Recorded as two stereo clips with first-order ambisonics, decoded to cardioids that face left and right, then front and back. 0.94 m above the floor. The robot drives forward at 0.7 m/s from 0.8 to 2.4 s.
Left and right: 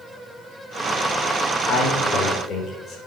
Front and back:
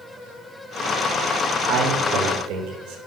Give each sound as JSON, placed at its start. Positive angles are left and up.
{"t": 1.7, "sound": "a man speaking", "azimuth_deg": 145, "distance_m": 3.5}